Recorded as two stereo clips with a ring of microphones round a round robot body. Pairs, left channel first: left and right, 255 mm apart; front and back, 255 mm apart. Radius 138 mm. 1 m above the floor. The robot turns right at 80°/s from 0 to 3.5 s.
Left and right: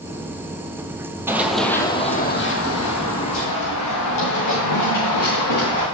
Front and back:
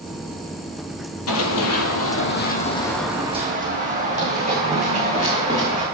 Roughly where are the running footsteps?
Ahead.